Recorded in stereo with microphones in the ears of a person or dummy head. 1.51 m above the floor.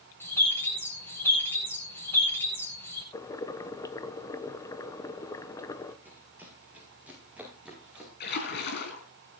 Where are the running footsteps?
10° right (ahead or behind), 5 m; by 8.1 s 5° right (ahead or behind), 6.5 m.